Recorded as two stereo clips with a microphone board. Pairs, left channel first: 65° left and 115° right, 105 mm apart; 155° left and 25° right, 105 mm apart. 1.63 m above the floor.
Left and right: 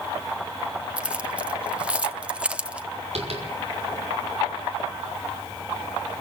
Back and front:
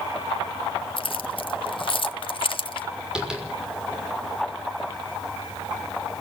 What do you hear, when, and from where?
1.0 s keys jangling: 170° left, 0.8 m
3.1 s tapping: 105° right, 6 m